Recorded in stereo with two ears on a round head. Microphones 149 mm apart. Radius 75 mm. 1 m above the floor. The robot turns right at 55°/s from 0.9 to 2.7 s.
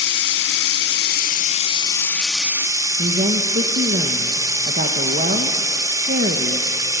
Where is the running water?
100° left, 1.5 m; by 7.0 s 160° right, 1.5 m.